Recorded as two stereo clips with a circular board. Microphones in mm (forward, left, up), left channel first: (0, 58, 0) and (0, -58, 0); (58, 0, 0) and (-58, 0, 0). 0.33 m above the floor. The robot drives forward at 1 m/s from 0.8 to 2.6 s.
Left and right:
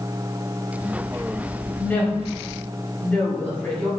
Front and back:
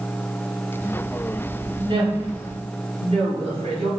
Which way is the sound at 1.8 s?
155° left.